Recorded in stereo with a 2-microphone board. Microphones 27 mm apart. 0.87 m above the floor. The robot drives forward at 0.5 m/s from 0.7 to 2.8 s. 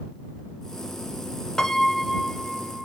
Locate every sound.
1.6 s a piano: 20° left (ahead or behind), 0.6 m; by 2.9 s 10° left (ahead or behind), 0.9 m